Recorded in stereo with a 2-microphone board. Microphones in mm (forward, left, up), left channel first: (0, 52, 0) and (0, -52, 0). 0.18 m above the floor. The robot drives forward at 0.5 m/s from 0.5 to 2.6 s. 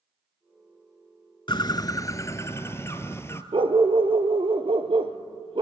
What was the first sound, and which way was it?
A bird, 50° left (ahead or behind).